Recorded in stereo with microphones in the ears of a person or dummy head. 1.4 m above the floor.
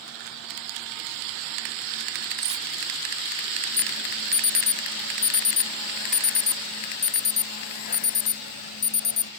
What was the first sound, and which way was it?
Cutlery clinking, 30° right (ahead or behind).